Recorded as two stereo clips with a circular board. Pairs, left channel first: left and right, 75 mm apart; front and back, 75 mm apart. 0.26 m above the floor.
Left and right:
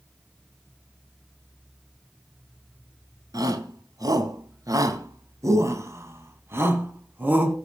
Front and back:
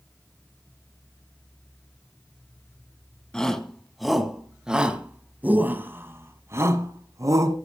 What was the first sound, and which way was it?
A shout, 80° right.